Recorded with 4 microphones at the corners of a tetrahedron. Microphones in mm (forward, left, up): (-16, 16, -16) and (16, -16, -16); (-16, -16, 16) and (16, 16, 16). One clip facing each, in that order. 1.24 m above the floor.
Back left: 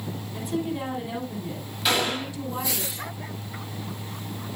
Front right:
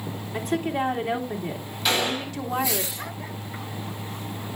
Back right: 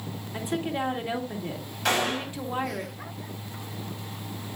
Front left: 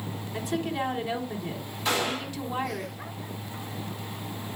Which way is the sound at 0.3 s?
70° right.